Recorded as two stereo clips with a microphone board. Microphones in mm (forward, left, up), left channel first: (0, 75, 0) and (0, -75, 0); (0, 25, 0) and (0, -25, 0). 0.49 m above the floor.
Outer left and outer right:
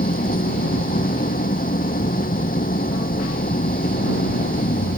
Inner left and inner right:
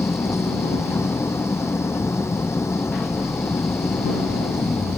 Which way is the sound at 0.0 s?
70° left (ahead or behind).